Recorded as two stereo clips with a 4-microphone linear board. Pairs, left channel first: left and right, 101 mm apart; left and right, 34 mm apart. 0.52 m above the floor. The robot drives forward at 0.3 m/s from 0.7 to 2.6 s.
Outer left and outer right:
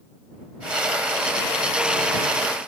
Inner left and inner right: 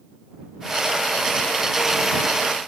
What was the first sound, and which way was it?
Only background noise.